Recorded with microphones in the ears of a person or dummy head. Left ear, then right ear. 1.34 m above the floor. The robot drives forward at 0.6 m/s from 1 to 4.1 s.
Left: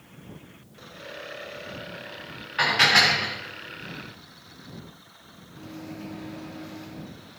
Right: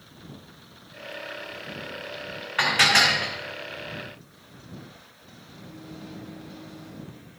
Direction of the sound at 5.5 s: 60° left (ahead or behind).